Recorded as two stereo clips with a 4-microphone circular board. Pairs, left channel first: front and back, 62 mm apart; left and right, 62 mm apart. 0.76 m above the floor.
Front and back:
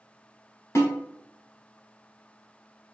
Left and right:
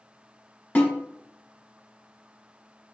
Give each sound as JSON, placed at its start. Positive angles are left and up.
{"t": 0.8, "sound": "a snare drum", "azimuth_deg": 25, "distance_m": 1.5}